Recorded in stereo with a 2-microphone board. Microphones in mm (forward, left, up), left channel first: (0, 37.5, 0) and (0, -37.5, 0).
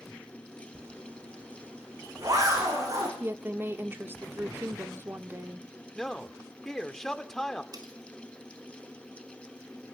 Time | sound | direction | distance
0.8 | a zipper | 45° right (ahead or behind) | 9 m
3.2 | a woman speaking | 30° right (ahead or behind) | 1.6 m
6.0 | a man speaking | 5° left (ahead or behind) | 1.7 m
7.7 | cutlery clinking | 55° right (ahead or behind) | 3.5 m